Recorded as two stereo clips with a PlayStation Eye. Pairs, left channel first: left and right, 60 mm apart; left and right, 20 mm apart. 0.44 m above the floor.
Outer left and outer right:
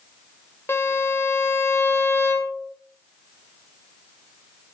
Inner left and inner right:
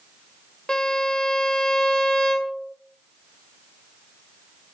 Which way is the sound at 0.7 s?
45° left (ahead or behind).